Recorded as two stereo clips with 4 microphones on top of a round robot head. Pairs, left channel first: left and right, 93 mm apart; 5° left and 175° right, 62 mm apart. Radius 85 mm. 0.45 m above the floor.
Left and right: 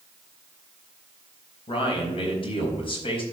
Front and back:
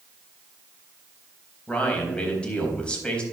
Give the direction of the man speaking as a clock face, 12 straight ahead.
9 o'clock.